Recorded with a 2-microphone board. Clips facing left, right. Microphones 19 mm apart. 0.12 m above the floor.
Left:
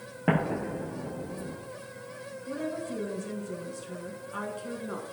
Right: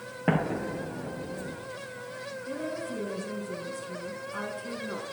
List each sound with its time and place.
0.3 s an explosion: 5° right (ahead or behind), 1.3 m
2.5 s a woman speaking: 5° left (ahead or behind), 1.2 m